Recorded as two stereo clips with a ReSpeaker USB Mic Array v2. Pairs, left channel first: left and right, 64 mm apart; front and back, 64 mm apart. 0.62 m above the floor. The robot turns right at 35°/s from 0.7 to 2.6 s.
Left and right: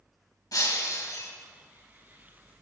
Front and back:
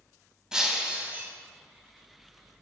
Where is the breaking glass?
100° left, 2.5 m; by 1.3 s 120° left, 2.5 m.